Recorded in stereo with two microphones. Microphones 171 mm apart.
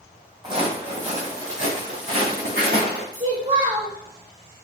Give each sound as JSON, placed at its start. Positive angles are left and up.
{"t": 0.4, "sound": "footsteps", "side_deg": -25, "distance_m": 1.1}
{"t": 3.1, "sound": "a child speaking", "side_deg": -50, "distance_m": 1.6}